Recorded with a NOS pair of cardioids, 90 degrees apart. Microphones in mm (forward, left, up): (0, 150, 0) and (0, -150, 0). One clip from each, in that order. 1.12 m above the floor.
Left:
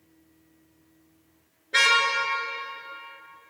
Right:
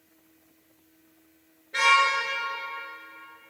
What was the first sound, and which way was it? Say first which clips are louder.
A car horn: even; 65° left.